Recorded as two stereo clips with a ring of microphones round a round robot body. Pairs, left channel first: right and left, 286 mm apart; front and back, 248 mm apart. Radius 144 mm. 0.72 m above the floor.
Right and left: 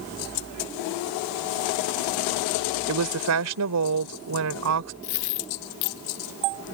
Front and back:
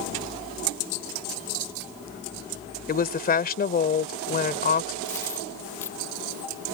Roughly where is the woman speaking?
Ahead left.